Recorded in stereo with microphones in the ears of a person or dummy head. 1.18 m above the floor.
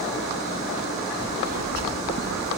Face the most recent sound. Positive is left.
turn(degrees=-55)  # may be behind; listen again after turning